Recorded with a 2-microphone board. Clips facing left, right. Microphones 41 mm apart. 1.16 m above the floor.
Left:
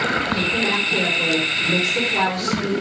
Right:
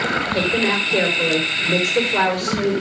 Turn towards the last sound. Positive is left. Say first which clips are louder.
# right 2 dB
turn(degrees=-30)  # may be behind; listen again after turning